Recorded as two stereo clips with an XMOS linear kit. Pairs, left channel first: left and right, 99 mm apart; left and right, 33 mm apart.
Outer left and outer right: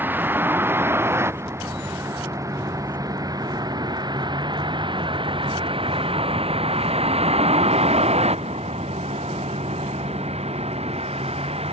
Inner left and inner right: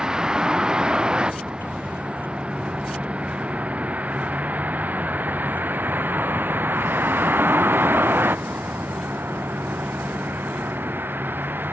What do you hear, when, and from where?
0.0 s a vehicle: 20° right (ahead or behind); by 11.7 s 70° right (ahead or behind)